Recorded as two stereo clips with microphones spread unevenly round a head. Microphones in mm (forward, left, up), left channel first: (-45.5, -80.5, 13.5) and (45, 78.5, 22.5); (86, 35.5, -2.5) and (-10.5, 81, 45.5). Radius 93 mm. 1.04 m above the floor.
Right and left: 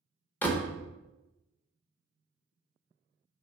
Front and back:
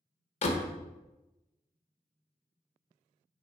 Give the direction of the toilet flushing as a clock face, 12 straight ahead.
No toilet flushing in this recording.